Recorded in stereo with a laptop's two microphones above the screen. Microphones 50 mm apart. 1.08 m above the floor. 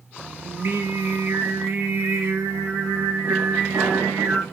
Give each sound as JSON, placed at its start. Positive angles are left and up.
{"t": 0.4, "sound": "singing", "side_deg": -60, "distance_m": 0.6}